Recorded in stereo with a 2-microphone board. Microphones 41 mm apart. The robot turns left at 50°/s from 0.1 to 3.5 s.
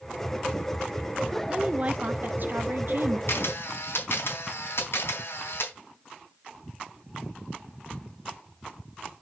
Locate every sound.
1.5 s a woman speaking: 25° right, 1.3 m; by 3.2 s 105° right, 1.3 m
3.3 s a camera shutter: 80° left, 3.5 m; by 5.7 s 70° left (ahead or behind), 3.5 m